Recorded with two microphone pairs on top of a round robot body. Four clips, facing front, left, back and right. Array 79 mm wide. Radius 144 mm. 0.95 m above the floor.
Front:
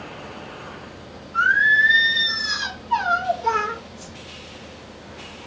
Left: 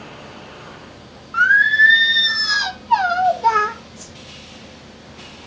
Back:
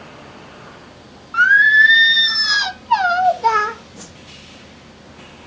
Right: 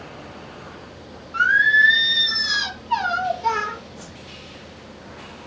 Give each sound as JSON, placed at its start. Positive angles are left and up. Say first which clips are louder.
{"t": 1.3, "sound": "singing", "louder": "left 3 dB, back 6 dB", "azimuth_deg": 145, "distance_m": 1.2}
{"t": 4.0, "sound": "a whoosh", "louder": "right 1 dB, back 1 dB", "azimuth_deg": -150, "distance_m": 1.3}